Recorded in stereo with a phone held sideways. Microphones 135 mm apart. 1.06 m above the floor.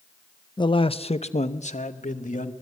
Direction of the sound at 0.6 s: 30° left (ahead or behind).